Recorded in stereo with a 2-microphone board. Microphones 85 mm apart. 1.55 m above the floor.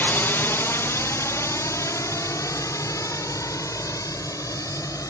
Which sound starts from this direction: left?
A drone, at 0.0 s.